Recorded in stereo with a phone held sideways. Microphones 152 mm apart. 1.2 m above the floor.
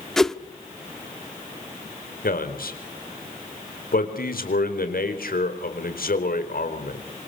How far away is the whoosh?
About 1.1 m.